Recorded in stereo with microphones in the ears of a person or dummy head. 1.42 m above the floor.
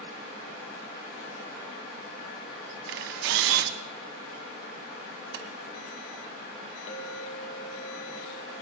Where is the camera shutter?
70° right (ahead or behind), 1.1 m.